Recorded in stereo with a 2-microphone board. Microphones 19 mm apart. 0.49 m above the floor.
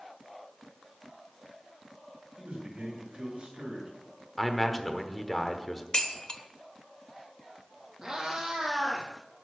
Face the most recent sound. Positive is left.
turn(degrees=-35)  # may be behind; listen again after turning